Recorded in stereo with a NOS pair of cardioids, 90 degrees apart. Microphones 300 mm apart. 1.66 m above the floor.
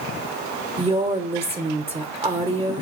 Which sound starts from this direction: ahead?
A woman speaking, at 0.8 s.